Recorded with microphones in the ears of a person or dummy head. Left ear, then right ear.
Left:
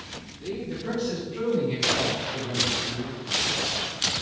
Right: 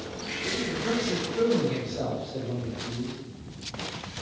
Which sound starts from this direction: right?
A man speaking, at 0.4 s.